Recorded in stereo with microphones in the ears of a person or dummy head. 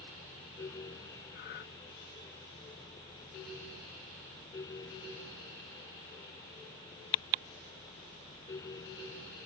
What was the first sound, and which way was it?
Breathing, 60° left (ahead or behind).